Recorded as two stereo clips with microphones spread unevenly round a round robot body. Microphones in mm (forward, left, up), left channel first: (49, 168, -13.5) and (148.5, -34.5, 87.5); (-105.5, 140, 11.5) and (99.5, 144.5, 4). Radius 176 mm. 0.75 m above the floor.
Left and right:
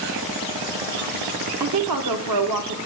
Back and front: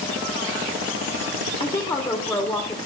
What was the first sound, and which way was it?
A woman speaking, 100° right.